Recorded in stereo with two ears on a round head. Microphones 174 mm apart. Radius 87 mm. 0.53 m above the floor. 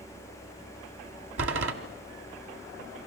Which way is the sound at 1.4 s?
70° right (ahead or behind).